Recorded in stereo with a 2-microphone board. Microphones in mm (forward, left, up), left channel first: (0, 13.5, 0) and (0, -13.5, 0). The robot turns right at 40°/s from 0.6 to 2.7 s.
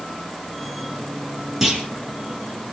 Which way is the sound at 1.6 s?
10° right (ahead or behind).